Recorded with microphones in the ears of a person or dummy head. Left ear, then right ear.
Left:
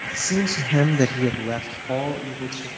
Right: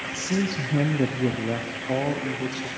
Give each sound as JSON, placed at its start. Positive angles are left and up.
{"t": 0.2, "sound": "a man speaking", "side_deg": 35, "distance_m": 1.3}